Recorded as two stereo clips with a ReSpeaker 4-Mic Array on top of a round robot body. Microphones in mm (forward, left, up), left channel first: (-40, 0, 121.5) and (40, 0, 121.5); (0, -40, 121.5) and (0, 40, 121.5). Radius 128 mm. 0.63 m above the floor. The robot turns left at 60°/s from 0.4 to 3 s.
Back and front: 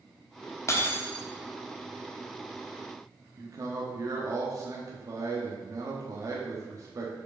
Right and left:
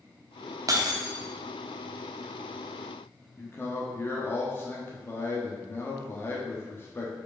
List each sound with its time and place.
0.7 s breaking glass: 130° left, 1.0 m; by 1.2 s 95° left, 1.0 m
3.4 s a man speaking: 35° right, 1.2 m